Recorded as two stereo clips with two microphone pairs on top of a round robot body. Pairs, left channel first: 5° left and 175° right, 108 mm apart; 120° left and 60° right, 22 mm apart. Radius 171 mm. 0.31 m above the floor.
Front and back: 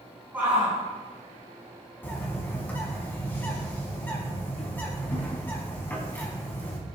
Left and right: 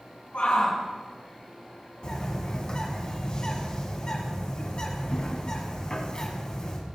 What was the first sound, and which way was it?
A shout, 110° left.